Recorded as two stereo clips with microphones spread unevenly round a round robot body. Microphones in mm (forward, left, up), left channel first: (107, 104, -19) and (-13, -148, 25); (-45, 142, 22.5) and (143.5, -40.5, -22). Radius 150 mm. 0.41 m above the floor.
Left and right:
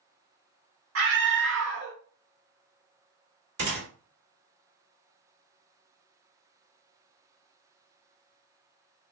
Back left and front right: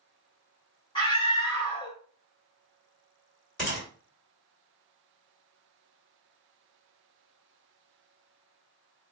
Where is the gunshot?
130° right, 1.7 m.